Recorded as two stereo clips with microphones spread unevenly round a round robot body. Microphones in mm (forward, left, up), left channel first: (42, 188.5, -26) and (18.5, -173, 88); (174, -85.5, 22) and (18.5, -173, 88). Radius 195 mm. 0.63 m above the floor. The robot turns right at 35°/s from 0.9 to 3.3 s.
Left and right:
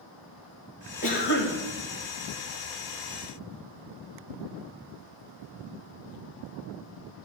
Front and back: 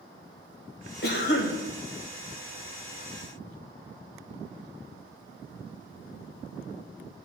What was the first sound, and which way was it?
A cough, 20° left.